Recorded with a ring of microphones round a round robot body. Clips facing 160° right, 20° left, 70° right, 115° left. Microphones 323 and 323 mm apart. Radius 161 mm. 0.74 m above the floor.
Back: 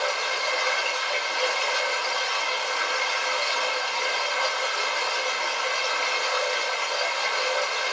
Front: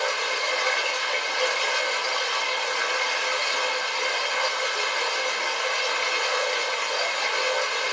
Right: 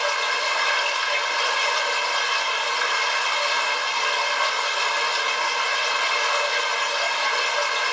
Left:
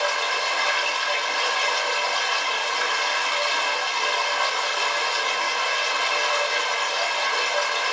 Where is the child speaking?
No child speaking in this recording.